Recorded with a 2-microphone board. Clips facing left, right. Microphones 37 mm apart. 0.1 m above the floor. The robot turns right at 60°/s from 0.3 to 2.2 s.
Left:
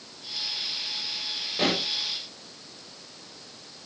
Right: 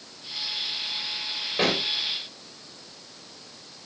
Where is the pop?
20° right (ahead or behind), 7 m; by 1.8 s 5° right (ahead or behind), 7 m.